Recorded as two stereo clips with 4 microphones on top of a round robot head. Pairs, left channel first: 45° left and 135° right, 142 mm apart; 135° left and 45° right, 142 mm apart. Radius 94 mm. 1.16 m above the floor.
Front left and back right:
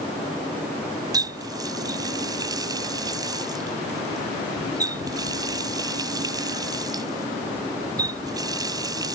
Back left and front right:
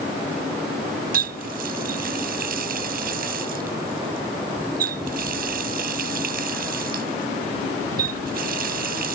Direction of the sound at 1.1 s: 75° right.